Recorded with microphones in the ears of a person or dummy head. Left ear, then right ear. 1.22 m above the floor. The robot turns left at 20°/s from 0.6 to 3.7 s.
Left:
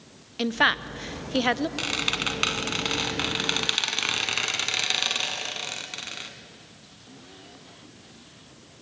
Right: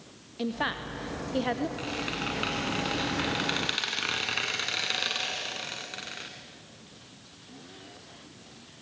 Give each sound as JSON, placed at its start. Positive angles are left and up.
{"t": 0.4, "sound": "a woman speaking", "side_deg": 55, "distance_m": 1.0}
{"t": 1.8, "sound": "a squeak", "azimuth_deg": 55, "distance_m": 1.9}